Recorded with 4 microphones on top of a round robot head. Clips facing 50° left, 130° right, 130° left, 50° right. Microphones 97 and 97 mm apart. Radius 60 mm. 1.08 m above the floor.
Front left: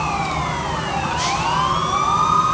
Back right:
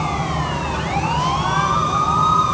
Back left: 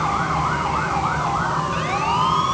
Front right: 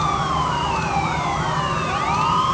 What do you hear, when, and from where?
Only background noise.